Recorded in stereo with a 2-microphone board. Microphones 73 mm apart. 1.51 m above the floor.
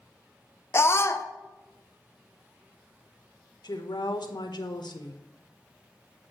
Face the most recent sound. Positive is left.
turn(degrees=75)  # may be behind; listen again after turning